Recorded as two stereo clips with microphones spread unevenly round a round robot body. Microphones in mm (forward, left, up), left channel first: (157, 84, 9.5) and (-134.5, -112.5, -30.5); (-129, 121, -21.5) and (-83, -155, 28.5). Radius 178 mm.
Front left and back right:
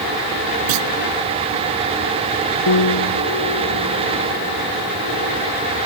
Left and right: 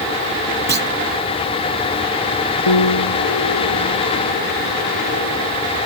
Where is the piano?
80° left.